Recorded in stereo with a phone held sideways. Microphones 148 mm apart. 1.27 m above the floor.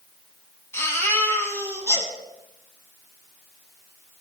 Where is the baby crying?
20° left (ahead or behind), 6 m.